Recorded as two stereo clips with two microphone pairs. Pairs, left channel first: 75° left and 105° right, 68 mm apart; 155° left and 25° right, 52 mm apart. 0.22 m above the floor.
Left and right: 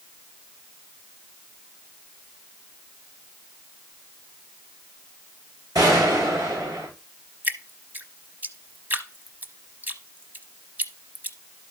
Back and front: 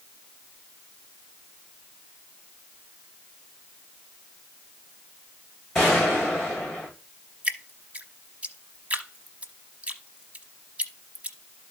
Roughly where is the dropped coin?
I don't hear a dropped coin.